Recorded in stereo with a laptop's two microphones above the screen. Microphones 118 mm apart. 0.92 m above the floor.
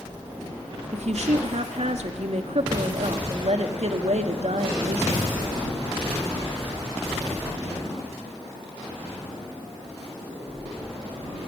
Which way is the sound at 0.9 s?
70° right (ahead or behind).